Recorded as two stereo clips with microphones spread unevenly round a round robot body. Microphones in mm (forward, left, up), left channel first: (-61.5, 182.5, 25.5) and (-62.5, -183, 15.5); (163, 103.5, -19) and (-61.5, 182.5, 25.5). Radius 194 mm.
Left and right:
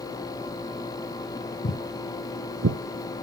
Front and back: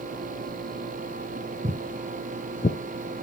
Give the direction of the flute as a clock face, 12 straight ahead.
No flute in this recording.